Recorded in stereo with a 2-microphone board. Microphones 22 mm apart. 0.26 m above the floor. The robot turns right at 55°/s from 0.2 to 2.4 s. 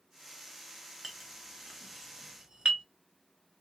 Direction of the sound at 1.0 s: 5° right (ahead or behind).